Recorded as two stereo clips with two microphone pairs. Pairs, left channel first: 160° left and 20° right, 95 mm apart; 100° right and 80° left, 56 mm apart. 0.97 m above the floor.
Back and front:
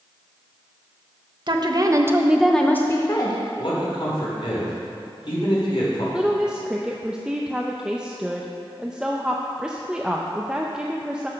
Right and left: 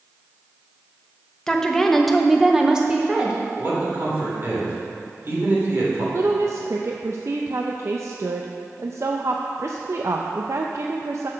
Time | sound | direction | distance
1.5 | a woman speaking | 25° right | 1.0 m
3.6 | a man speaking | 130° left | 3 m
6.1 | a woman speaking | 60° left | 0.5 m